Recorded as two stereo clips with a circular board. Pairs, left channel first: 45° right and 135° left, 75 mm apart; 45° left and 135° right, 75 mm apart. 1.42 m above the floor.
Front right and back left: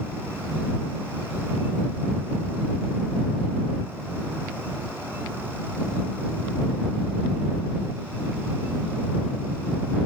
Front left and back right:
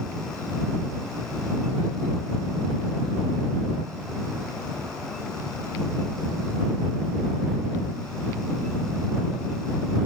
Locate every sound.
Only background noise.